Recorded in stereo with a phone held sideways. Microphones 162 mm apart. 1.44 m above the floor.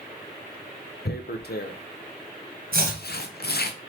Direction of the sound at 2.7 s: 65° right (ahead or behind).